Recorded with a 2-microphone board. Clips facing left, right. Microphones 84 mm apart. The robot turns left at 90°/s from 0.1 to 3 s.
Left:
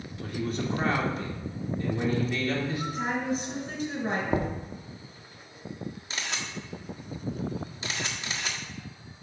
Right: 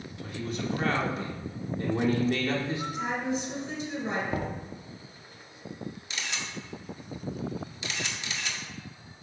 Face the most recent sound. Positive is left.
turn(degrees=40)  # may be behind; listen again after turning